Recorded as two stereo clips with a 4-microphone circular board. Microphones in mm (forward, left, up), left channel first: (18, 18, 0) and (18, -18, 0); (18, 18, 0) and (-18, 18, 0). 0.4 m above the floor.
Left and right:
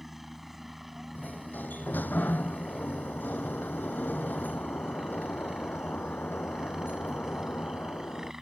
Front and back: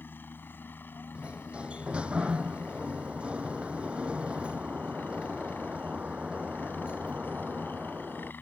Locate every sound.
0.0 s a helicopter: 5° right; by 8.4 s 15° right
1.1 s a sliding door: 120° left